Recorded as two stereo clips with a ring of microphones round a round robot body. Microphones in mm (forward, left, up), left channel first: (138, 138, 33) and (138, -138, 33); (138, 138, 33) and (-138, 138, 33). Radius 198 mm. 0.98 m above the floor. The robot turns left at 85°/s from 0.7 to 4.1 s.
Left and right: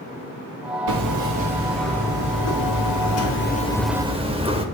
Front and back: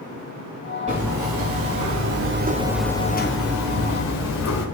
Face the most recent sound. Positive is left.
turn(degrees=-20)